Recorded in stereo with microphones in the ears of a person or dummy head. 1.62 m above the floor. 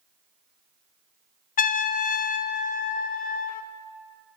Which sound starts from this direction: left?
A trumpet, at 1.6 s.